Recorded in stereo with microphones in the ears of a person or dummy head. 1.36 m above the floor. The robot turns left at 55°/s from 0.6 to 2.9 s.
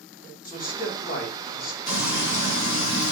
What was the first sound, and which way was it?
A man speaking, 150° left.